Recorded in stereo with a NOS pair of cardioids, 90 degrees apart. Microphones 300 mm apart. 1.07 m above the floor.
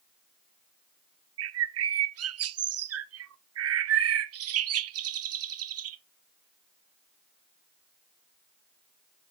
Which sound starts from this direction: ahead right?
A bird, at 1.4 s.